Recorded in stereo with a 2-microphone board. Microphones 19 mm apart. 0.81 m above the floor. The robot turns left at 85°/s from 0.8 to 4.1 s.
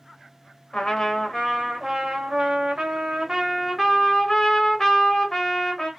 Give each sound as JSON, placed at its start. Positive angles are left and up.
{"t": 0.7, "sound": "a trumpet", "azimuth_deg": 65, "distance_m": 1.1}